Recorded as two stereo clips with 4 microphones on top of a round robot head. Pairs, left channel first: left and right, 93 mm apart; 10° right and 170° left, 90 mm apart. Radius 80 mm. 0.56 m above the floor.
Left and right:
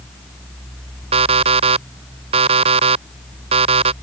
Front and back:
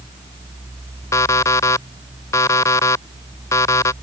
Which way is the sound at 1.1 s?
70° right.